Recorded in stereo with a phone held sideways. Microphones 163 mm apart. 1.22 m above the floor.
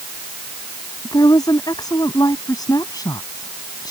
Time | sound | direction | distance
1.1 | a woman speaking | 25° left (ahead or behind) | ?